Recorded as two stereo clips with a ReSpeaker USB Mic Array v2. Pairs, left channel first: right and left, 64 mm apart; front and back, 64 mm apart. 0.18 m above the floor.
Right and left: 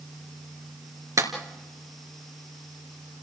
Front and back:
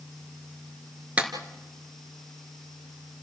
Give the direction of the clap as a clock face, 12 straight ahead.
8 o'clock.